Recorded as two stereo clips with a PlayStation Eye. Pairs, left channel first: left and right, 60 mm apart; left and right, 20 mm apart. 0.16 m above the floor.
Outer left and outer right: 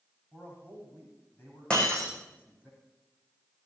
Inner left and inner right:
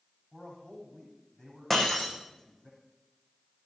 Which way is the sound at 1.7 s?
15° left (ahead or behind).